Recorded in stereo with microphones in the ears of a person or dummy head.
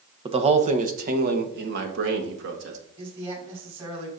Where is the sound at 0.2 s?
25° right (ahead or behind), 0.8 m; by 2.8 s 70° right (ahead or behind), 1.9 m.